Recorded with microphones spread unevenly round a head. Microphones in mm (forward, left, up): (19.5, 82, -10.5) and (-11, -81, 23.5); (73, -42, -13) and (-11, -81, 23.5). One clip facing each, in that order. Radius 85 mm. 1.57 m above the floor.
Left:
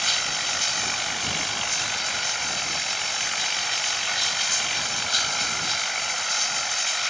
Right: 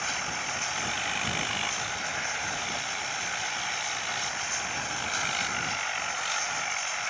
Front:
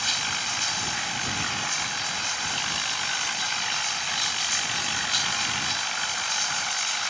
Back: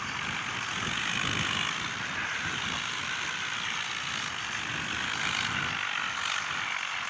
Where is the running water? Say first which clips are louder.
Left 2 dB, front 3 dB; 40° left.